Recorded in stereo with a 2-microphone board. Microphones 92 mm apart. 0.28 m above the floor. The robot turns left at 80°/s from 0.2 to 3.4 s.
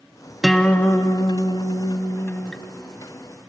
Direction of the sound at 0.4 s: Straight behind.